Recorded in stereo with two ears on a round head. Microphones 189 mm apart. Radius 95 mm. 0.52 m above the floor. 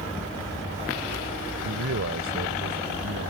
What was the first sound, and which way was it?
A man speaking, 65° right (ahead or behind).